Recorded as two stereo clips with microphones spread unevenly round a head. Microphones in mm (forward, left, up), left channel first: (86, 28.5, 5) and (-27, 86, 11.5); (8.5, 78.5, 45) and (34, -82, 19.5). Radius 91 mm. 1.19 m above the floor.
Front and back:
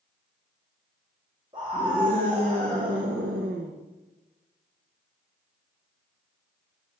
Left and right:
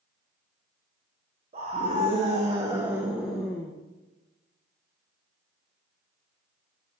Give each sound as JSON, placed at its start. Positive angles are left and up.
{"t": 1.5, "sound": "a scream", "azimuth_deg": -135, "distance_m": 1.8}